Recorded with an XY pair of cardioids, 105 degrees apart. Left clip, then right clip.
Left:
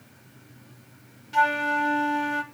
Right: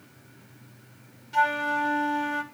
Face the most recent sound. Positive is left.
turn(degrees=15)